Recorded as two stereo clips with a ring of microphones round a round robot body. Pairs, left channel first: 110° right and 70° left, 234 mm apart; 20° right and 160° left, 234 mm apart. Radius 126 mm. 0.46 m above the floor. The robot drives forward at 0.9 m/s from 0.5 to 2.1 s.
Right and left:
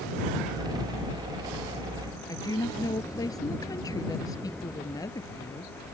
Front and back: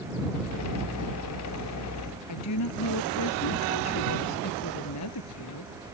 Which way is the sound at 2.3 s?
35° right.